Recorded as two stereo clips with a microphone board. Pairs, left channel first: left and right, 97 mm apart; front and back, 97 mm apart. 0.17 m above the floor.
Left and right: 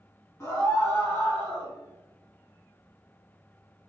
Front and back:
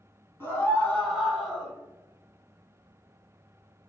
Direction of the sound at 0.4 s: 50° left.